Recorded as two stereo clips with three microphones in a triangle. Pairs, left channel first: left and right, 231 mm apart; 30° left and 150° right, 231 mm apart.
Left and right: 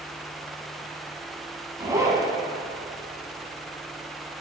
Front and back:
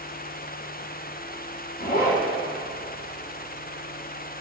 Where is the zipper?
15° right, 2 m.